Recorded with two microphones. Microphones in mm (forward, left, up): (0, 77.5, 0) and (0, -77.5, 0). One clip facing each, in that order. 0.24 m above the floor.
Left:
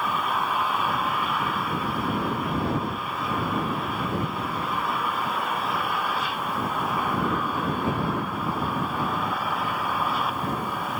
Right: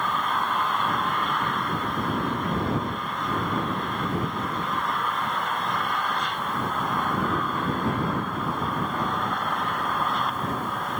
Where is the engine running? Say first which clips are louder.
Even; 5° left (ahead or behind).